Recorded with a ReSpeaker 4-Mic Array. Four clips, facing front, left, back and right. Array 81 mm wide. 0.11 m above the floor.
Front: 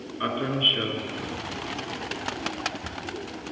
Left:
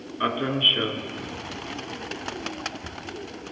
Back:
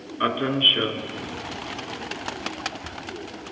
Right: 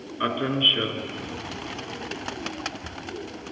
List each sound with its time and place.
0.2 s a man speaking: straight behind, 1.1 m